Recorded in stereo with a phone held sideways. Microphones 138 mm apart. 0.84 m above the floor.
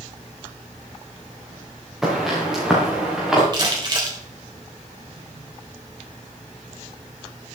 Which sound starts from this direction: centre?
Footsteps, at 2.0 s.